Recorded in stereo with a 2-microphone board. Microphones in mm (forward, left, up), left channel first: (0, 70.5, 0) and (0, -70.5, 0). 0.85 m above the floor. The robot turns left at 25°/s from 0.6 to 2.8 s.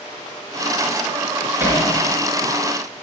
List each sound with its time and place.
1.6 s hammering: 15° right (ahead or behind), 6 m; by 1.8 s 10° right (ahead or behind), 6 m